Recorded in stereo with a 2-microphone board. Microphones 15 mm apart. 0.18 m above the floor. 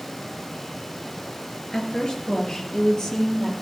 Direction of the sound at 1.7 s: 60° left (ahead or behind).